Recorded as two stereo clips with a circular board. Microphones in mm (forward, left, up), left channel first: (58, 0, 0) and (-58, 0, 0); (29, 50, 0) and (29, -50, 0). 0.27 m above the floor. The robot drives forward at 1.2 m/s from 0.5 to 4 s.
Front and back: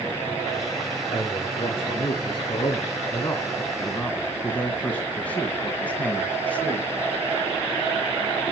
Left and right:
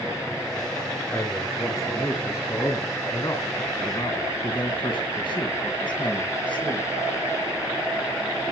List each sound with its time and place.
1.1 s a man speaking: 25° left, 4.5 m; by 6.9 s 75° left, 2.5 m